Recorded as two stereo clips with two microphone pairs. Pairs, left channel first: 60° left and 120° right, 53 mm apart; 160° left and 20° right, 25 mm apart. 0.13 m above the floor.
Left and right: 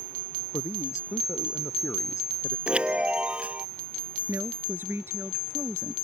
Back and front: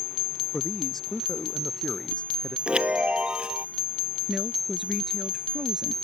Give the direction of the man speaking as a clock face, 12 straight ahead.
9 o'clock.